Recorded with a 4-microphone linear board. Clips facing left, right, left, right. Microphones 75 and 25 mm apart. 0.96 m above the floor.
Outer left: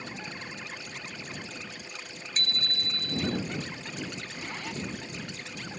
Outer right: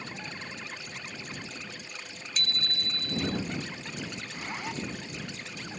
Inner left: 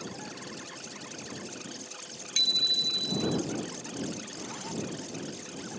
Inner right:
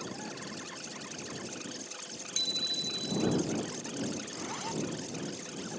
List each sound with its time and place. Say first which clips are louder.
2.4 s a bicycle bell: even, inner left 7 dB; 45° left (ahead or behind)
4.2 s a zipper: outer right 1 dB, inner right 1 dB; 20° right (ahead or behind)